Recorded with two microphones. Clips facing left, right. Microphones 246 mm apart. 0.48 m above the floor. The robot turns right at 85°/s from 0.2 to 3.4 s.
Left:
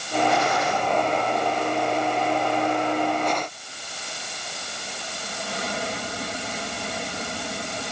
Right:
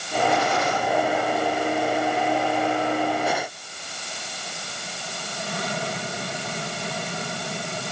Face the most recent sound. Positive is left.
No sound to turn to.